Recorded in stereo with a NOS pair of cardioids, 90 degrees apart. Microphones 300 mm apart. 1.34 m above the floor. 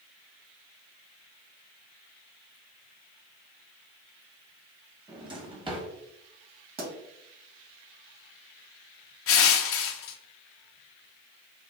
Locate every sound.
5.1 s a drawer: 20° right, 1.3 m
6.8 s a pop: 30° right, 1.7 m
9.3 s crushing: 50° left, 0.6 m